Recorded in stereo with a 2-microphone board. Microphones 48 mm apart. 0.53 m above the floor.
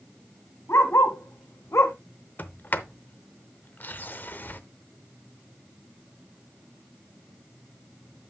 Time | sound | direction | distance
0.7 | a dog barking | 75° left (ahead or behind) | 1.6 m
2.4 | a sliding door | 45° left (ahead or behind) | 0.6 m